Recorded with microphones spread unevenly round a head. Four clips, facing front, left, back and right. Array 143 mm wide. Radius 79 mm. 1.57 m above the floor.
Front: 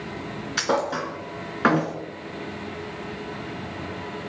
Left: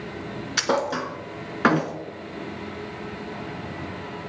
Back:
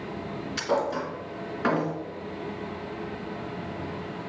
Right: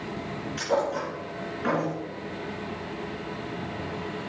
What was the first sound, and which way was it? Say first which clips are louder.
A thud: left 2 dB, front 2 dB; 65° left.